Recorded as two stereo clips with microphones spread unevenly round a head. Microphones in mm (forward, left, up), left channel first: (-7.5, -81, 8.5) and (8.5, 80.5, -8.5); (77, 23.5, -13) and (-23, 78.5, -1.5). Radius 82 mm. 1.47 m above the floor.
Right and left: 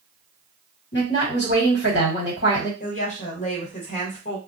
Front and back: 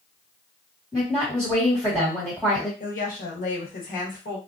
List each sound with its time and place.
0.9 s a woman speaking: 120° right, 1.4 m
2.8 s a woman speaking: 45° right, 1.1 m